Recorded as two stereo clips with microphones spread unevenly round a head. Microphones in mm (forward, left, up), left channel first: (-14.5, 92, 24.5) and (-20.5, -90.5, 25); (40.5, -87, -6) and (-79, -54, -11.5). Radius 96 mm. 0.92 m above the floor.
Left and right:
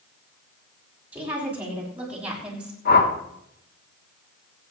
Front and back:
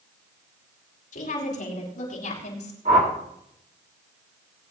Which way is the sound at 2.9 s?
120° left.